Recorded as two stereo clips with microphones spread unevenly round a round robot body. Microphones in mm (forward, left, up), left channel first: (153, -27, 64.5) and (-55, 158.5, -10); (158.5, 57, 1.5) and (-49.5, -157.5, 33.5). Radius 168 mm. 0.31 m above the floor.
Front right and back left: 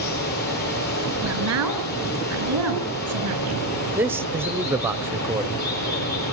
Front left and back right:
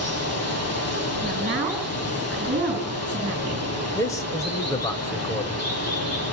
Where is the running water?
10° left, 8 m.